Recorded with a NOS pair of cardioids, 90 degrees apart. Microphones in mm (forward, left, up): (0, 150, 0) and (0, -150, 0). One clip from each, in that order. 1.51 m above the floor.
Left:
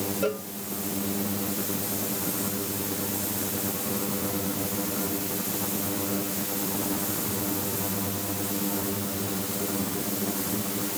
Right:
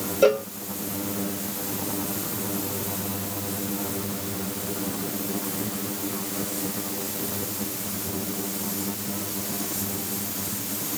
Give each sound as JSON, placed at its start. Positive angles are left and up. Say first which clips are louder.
{"t": 0.2, "sound": "a cowbell", "louder": "right 11 dB", "azimuth_deg": -60}